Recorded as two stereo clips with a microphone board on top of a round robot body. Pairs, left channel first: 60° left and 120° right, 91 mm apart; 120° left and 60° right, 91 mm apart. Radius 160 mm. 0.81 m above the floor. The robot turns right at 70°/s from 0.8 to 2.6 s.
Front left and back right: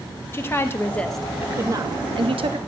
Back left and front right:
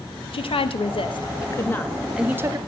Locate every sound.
0.3 s a woman speaking: 125° left, 1.3 m; by 2.6 s 115° right, 1.3 m